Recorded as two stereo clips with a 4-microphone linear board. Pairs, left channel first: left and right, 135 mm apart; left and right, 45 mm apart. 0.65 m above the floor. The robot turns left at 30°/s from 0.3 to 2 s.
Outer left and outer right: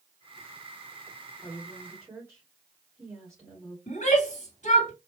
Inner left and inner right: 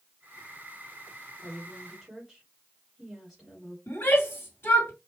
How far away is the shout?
About 2 m.